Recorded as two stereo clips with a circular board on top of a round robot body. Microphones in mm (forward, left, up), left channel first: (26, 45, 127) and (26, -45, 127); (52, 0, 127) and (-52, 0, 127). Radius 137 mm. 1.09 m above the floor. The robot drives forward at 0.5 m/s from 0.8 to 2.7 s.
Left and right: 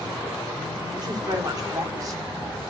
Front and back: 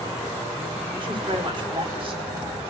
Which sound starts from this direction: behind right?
A woman speaking, at 1.0 s.